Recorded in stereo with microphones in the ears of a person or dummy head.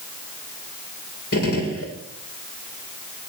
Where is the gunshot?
60° left (ahead or behind), 2.5 m.